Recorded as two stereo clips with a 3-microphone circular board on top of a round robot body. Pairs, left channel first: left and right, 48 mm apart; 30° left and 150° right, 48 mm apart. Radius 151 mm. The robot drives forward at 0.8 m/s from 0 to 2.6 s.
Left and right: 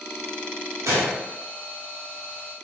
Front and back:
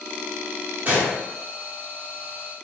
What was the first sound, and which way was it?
A gunshot, 95° right.